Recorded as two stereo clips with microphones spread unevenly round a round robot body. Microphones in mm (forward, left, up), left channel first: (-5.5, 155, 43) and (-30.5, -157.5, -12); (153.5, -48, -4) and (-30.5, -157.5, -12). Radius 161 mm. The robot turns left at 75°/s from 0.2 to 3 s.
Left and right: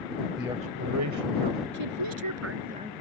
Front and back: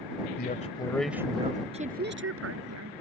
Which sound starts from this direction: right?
A woman speaking, at 1.7 s.